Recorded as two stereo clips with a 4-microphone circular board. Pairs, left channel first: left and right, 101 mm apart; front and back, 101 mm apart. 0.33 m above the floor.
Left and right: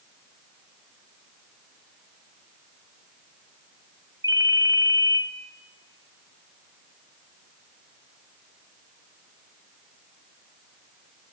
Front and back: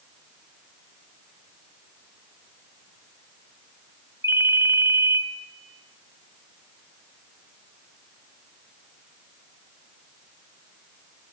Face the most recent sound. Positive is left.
turn(degrees=-130)